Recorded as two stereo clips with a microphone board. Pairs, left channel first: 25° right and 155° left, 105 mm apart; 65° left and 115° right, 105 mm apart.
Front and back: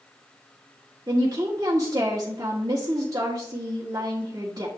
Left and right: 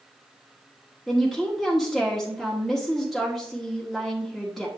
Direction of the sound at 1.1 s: 155° left.